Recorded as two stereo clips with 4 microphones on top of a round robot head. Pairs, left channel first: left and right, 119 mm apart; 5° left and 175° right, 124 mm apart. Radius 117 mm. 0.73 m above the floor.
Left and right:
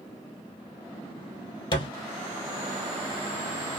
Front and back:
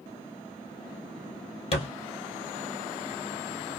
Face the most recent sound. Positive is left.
turn(degrees=40)